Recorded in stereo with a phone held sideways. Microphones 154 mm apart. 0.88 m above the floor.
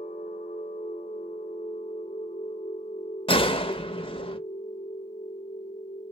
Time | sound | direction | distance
0.0 | a machine running | 65° left (ahead or behind) | 1.4 m
3.3 | a gunshot | 35° left (ahead or behind) | 0.7 m